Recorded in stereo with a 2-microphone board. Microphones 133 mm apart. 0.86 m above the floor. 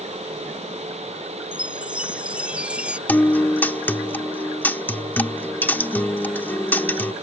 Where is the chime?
10° right (ahead or behind).